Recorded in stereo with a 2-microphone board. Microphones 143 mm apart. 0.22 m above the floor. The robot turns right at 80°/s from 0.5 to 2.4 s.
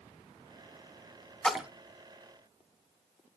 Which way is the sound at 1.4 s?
5° left (ahead or behind).